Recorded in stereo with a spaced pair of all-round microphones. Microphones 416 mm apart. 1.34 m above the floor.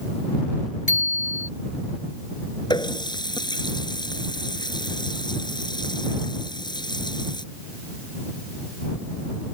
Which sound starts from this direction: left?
A bicycle bell, at 0.9 s.